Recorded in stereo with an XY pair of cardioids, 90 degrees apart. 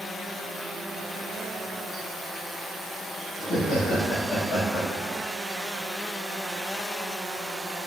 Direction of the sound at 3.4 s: 60° left.